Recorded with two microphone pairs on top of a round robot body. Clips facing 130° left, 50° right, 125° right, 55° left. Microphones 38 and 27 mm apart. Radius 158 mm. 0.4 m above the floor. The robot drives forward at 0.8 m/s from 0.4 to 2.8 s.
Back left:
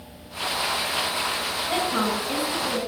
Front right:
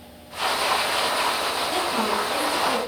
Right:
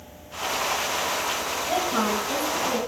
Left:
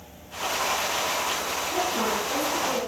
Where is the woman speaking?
165° right, 4 m.